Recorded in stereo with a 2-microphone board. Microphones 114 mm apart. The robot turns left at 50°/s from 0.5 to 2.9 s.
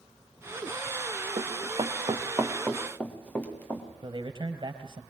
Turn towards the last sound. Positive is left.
turn(degrees=-45)  # may be behind; listen again after turning